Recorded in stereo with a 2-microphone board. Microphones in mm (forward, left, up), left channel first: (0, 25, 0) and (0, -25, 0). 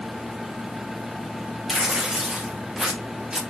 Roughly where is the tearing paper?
Centre.